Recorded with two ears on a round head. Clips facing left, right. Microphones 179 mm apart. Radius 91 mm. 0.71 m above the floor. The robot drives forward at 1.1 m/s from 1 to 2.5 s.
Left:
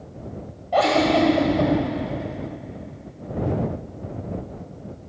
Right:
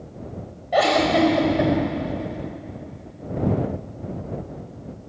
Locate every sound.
0.7 s a giggle: 15° right (ahead or behind), 4.5 m; by 1.7 s 20° right (ahead or behind), 3.5 m